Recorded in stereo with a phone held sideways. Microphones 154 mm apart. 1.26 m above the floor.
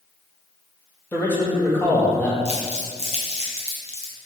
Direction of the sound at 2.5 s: 45° left (ahead or behind).